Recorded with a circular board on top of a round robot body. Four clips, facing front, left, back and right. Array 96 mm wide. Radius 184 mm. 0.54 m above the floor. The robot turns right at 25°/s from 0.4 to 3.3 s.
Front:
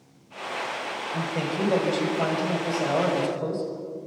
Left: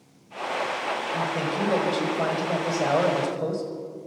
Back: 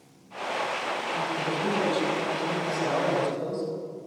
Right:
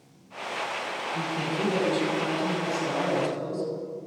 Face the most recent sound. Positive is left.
turn(degrees=90)